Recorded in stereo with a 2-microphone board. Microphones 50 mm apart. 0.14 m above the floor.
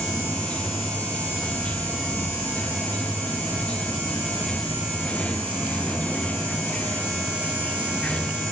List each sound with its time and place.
0.0 s running water: 25° left (ahead or behind)